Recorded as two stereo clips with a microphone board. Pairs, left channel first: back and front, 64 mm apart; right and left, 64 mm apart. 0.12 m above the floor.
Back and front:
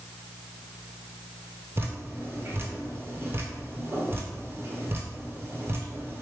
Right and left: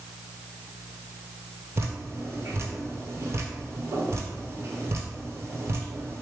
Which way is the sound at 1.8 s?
45° left.